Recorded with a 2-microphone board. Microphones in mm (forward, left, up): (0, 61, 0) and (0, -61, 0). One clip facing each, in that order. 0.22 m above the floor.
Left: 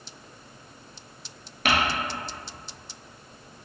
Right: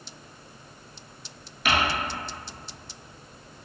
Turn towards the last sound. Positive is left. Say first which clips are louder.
# left 1 dB
turn(degrees=60)  # may be behind; listen again after turning